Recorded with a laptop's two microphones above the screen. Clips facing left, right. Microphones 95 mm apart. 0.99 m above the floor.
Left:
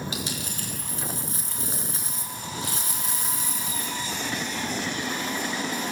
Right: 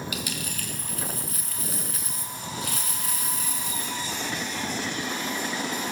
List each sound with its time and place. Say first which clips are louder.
0.1 s a dropped coin: left 1 dB; 25° left (ahead or behind), 4 m